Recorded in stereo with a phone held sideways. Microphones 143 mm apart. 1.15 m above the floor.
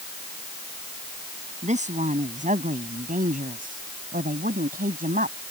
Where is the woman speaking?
55° right (ahead or behind); by 5.4 s 80° right.